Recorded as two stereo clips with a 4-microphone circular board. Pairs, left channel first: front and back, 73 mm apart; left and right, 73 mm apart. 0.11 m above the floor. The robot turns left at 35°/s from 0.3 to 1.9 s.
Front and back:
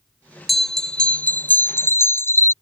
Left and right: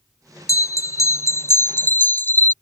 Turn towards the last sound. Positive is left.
turn(degrees=40)